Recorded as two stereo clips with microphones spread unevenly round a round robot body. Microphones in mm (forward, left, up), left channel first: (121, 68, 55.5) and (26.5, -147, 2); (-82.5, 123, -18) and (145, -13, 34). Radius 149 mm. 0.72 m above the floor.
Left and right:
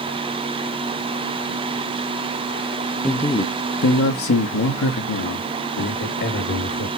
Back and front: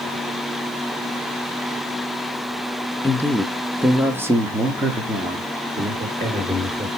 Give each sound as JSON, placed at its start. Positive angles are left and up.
{"t": 3.0, "sound": "a man speaking", "azimuth_deg": 180, "distance_m": 0.9}